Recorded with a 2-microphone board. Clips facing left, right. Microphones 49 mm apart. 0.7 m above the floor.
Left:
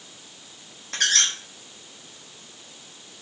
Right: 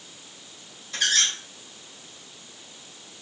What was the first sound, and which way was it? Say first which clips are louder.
A squeak: left 1 dB; 60° left (ahead or behind).